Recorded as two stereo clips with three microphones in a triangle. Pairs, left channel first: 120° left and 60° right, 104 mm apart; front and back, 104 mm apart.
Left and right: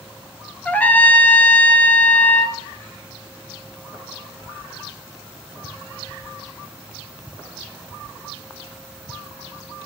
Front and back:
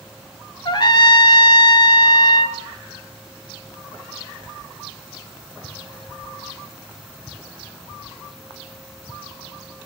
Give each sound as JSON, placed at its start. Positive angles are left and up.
{"t": 0.7, "sound": "a trumpet", "azimuth_deg": 45, "distance_m": 0.7}